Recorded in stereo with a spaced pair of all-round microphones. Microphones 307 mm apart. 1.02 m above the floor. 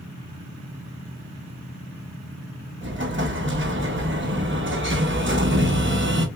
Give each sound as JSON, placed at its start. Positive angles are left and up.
{"t": 2.8, "sound": "an explosion", "side_deg": -40, "distance_m": 0.9}